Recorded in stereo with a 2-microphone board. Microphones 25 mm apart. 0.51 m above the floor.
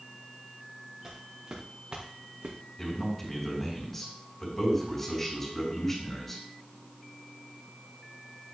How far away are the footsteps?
About 3 m.